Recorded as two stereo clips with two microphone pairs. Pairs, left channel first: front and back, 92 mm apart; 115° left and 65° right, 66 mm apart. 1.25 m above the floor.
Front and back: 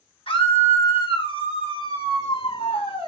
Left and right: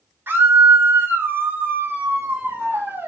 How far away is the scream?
About 5.5 m.